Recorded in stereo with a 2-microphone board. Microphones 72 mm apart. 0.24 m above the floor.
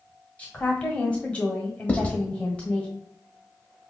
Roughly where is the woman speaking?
Centre.